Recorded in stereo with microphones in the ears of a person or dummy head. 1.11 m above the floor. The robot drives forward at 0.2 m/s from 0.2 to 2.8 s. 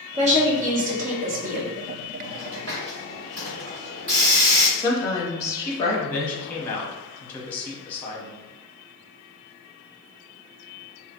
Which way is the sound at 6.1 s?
10° left (ahead or behind).